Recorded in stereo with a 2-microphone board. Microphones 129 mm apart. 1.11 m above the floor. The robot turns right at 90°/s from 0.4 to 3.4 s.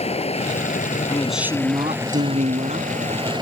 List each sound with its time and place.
0.0 s running water: 55° left; by 3.4 s 35° right
1.1 s a man speaking: 160° left; by 2.9 s 35° right